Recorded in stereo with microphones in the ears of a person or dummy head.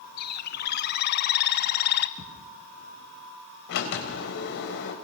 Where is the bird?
50° left (ahead or behind), 0.6 m.